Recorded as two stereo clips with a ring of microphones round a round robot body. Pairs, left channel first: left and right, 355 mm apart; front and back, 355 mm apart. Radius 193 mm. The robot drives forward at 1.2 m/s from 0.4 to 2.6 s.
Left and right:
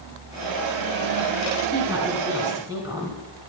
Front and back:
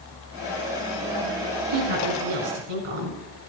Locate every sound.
1.7 s a woman speaking: 170° right, 4.5 m